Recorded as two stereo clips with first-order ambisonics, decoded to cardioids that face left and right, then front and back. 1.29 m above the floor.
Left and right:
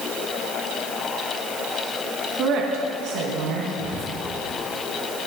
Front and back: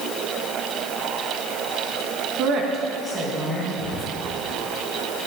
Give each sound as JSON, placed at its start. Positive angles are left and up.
{"t": 2.4, "sound": "a woman speaking", "azimuth_deg": -140, "distance_m": 1.4}
{"t": 3.8, "sound": "whispering", "azimuth_deg": -50, "distance_m": 3.0}